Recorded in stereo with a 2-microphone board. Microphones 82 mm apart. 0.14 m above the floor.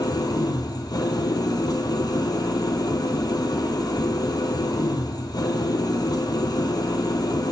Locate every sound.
0.0 s an engine running: 55° left (ahead or behind), 1.0 m